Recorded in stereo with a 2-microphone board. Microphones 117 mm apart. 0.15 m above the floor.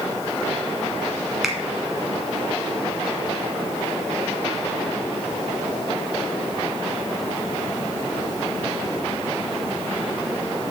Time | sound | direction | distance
1.4 | a finger snap | 5° right (ahead or behind) | 1.4 m